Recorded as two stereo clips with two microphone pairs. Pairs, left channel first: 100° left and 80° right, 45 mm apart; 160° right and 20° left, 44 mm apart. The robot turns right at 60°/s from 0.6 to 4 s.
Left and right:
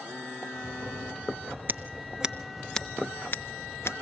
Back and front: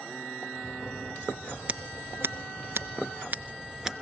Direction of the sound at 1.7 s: 40° right.